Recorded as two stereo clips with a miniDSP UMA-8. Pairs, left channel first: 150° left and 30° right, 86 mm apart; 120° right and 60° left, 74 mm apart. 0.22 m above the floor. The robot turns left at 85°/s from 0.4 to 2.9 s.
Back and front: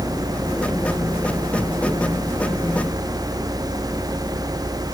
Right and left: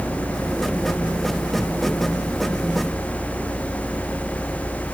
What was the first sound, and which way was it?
Only background noise.